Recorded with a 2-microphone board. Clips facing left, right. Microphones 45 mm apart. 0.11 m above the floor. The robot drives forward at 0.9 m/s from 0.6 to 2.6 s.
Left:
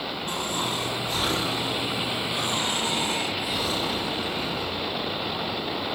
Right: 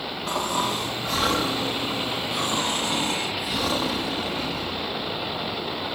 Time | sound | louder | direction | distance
0.3 | snoring | right 5 dB | 85° right | 4 m